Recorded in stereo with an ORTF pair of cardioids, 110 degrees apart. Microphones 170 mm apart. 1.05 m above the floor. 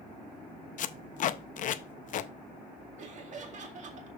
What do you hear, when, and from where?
0.8 s tape being pulled: 50° left, 0.6 m
3.0 s laughter: 45° right, 2 m